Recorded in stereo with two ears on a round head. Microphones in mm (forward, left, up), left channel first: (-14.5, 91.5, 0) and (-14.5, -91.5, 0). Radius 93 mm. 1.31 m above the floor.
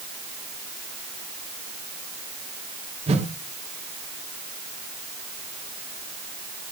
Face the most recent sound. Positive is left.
turn(degrees=-30)  # may be behind; listen again after turning